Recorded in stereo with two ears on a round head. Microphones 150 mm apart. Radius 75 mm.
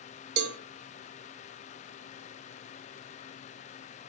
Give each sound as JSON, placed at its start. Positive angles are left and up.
{"t": 0.4, "sound": "a cowbell", "side_deg": -65, "distance_m": 0.5}